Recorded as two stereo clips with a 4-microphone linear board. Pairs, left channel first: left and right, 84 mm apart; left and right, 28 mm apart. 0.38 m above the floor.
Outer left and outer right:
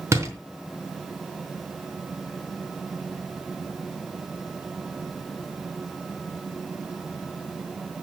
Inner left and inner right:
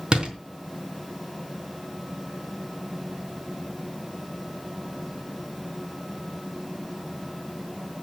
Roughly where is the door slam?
Right.